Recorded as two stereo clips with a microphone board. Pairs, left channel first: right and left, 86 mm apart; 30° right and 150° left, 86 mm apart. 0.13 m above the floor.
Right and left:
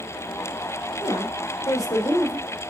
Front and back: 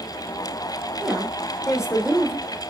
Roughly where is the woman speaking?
Behind right.